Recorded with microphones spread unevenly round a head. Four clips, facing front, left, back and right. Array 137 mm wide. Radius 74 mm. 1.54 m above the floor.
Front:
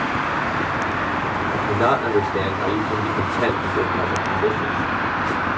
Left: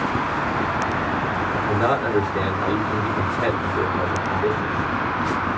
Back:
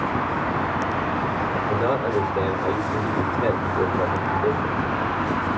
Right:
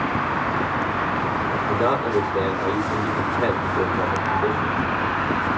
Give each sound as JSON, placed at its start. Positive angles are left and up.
{"t": 1.5, "sound": "a man speaking", "azimuth_deg": 0, "distance_m": 1.2}